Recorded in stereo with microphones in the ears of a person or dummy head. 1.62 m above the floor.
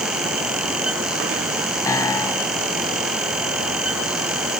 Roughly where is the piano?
Centre.